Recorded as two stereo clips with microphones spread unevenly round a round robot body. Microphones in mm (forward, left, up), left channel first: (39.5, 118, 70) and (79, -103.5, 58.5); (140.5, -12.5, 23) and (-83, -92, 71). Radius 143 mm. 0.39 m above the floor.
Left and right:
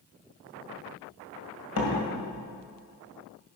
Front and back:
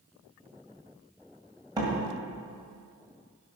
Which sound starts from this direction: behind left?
A door slam, at 1.8 s.